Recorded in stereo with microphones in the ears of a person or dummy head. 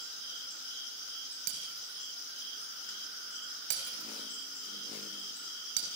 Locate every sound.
1.5 s breaking glass: 70° right (ahead or behind), 4 m